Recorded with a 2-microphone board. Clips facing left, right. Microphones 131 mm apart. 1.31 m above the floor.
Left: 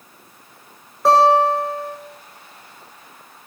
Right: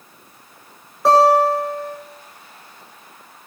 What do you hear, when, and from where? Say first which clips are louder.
1.1 s a guitar: right 1 dB; centre (ahead or behind), 5 m